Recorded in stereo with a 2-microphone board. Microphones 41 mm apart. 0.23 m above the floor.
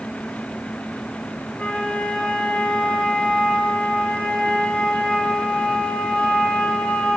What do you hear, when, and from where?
1.6 s a flute: 30° left (ahead or behind), 0.7 m